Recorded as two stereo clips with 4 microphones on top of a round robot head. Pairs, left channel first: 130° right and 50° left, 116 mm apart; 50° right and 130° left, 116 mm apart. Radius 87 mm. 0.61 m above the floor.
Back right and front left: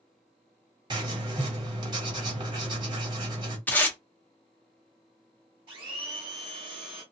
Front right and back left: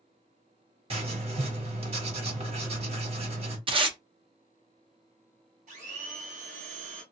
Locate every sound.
0.9 s writing: 100° left, 1.6 m
3.7 s tape being pulled: 160° left, 0.9 m
5.7 s a blender: 100° left, 1.2 m